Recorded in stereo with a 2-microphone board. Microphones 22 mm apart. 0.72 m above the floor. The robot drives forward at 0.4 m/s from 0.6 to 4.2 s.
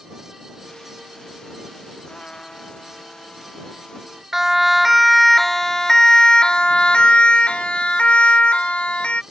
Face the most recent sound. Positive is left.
turn(degrees=75)  # may be behind; listen again after turning